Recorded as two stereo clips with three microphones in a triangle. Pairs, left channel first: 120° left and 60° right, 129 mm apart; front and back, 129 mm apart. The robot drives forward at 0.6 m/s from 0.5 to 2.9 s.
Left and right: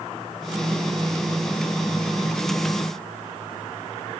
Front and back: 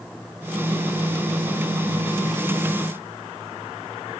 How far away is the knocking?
I don't hear knocking.